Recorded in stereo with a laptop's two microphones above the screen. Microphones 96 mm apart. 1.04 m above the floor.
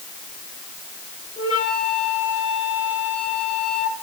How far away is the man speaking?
I don't hear a man speaking.